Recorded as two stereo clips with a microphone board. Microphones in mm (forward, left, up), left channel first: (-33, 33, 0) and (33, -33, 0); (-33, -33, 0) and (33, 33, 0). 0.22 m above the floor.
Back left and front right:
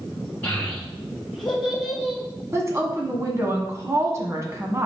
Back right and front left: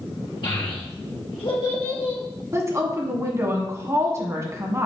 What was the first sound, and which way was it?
A child speaking, 155° right.